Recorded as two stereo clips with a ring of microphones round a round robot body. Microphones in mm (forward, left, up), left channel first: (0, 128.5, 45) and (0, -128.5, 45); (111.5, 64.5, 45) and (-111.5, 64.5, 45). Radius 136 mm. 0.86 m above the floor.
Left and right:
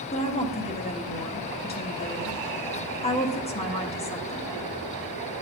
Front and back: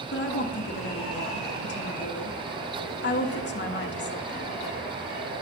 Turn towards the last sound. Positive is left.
turn(degrees=25)